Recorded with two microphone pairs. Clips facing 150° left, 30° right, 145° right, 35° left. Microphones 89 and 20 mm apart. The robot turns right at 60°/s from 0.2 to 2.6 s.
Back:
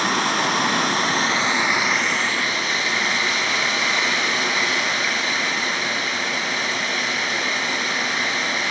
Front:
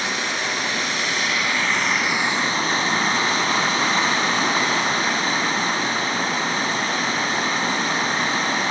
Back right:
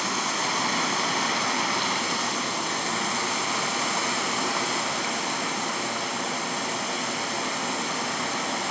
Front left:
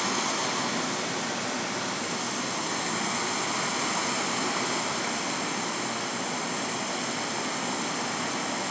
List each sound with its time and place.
0.0 s running water: 140° left, 0.8 m; by 8.7 s 80° right, 0.8 m